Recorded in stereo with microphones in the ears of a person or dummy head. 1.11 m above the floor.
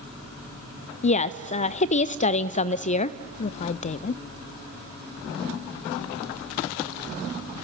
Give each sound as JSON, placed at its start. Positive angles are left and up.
{"t": 1.0, "sound": "a woman speaking", "side_deg": 30, "distance_m": 0.7}